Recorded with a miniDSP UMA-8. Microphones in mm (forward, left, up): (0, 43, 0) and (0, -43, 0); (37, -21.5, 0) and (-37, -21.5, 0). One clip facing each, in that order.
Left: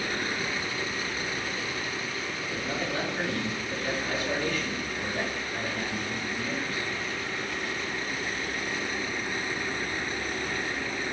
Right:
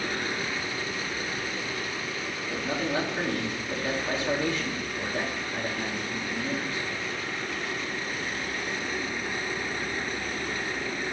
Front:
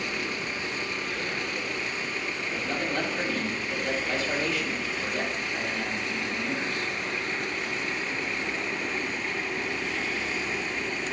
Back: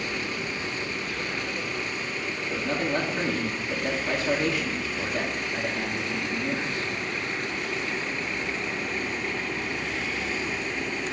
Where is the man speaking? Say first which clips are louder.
Right 4 dB, back 4 dB; 150° right, 2.5 m.